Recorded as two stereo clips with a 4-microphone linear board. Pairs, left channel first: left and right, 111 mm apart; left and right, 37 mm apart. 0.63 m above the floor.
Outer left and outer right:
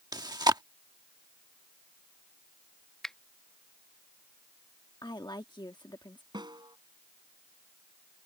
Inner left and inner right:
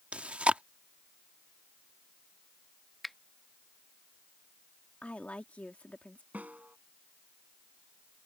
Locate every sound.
0.1 s chewing: 35° right (ahead or behind)
3.0 s a finger snap: 5° left (ahead or behind)
5.0 s a woman speaking: 40° left (ahead or behind)
6.3 s a snare drum: 40° right (ahead or behind)